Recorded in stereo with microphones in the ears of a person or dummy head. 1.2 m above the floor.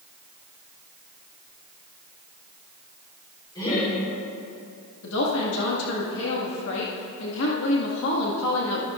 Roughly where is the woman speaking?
Left.